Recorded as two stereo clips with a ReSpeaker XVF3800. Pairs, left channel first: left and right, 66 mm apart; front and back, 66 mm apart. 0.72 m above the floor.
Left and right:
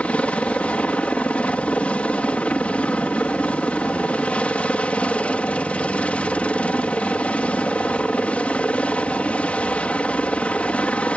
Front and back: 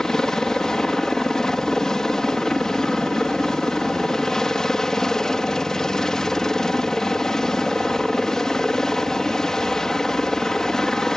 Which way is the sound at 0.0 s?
65° left.